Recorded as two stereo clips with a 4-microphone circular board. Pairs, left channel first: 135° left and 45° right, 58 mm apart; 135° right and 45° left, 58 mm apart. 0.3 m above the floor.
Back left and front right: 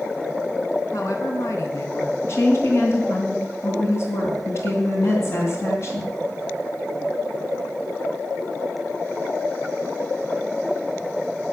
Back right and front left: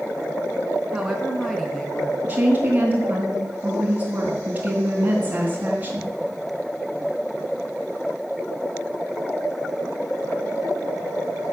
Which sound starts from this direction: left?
A woman speaking, at 2.2 s.